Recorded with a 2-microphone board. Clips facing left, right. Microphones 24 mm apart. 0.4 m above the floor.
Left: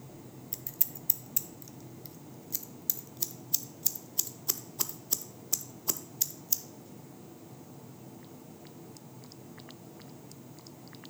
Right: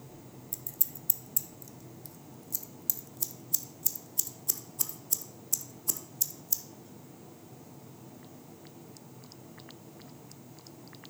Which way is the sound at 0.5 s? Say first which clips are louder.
Right 1 dB; 25° left (ahead or behind).